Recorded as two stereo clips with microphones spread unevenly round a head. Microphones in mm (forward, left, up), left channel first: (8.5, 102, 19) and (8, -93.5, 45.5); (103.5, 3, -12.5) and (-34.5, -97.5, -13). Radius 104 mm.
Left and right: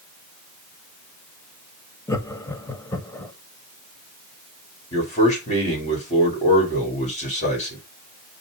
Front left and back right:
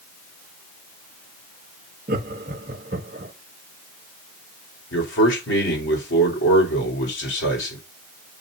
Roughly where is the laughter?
Behind.